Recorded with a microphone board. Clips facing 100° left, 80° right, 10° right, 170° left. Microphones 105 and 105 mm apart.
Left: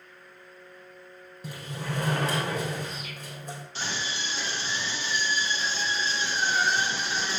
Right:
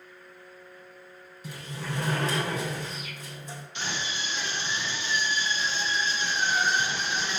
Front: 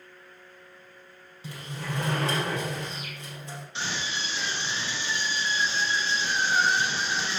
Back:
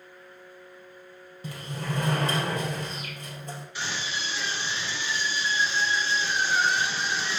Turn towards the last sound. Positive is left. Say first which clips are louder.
# right 1 dB, front 1 dB
turn(degrees=50)